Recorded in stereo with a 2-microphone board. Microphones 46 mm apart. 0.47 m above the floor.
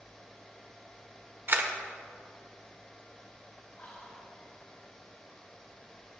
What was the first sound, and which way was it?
A camera shutter, 50° right (ahead or behind).